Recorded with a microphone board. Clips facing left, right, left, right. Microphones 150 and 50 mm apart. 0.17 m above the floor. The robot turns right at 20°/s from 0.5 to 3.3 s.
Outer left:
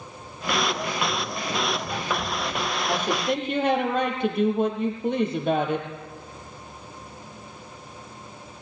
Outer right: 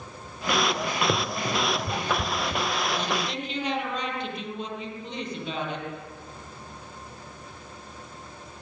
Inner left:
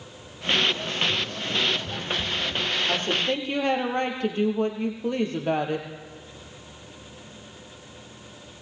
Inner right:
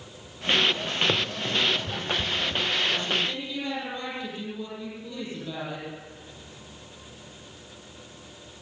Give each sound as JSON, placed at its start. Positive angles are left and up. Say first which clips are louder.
{"t": 1.1, "sound": "running footsteps", "louder": "outer right 2 dB, inner right 1 dB", "side_deg": -75, "distance_m": 1.6}
{"t": 2.9, "sound": "a woman speaking", "louder": "outer left 4 dB, inner left 2 dB", "side_deg": 45, "distance_m": 4.5}